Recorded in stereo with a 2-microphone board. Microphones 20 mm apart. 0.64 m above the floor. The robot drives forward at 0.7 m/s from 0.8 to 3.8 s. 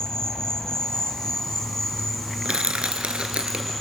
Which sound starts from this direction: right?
Crushing, at 2.5 s.